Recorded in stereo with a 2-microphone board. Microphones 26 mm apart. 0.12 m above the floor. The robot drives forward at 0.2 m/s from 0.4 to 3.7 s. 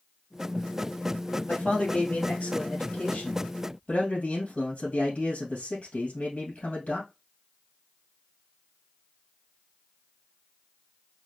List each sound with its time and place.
1.5 s a man speaking: 55° left (ahead or behind), 2.0 m; by 7.0 s 50° left (ahead or behind), 2 m